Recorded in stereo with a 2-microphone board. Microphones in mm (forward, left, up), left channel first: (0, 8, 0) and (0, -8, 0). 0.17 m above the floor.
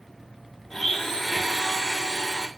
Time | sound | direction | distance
0.7 | a blender | 15° left (ahead or behind) | 1.1 m